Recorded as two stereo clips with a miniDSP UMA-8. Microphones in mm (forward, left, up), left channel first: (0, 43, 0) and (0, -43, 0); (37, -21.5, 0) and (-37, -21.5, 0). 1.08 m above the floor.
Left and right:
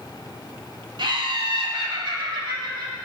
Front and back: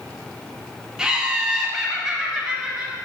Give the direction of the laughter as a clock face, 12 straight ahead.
3 o'clock.